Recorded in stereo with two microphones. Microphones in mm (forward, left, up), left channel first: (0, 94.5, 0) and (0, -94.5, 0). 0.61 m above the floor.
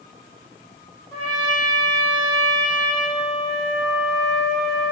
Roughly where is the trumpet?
Left.